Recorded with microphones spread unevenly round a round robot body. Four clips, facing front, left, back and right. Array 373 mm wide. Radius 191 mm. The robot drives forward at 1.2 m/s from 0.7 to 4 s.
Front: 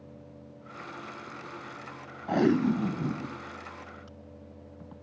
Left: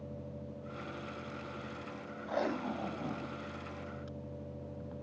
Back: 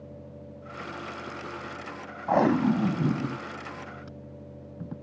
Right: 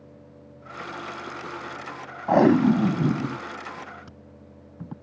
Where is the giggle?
No giggle in this recording.